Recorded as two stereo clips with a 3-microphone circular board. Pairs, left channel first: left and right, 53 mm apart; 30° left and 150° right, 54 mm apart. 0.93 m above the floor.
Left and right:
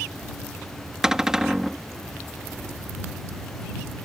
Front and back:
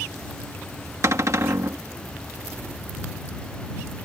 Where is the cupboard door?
170° right.